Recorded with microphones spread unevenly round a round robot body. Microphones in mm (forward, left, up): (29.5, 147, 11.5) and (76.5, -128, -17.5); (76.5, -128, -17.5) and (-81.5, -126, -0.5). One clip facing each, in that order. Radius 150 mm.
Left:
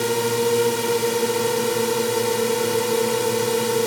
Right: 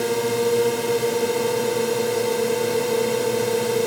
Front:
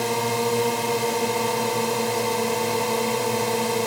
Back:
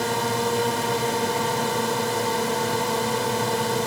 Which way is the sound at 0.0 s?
60° left.